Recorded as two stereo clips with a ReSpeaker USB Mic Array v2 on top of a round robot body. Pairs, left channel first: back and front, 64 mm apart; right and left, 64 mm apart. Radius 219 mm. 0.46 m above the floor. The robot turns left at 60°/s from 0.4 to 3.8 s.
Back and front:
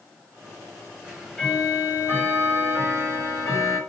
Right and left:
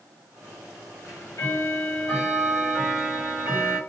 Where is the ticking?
75° right, 1.5 m; by 3.8 s 120° left, 1.5 m.